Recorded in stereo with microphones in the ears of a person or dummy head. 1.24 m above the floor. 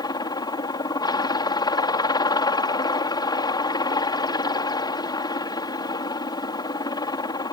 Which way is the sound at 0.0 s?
15° left (ahead or behind).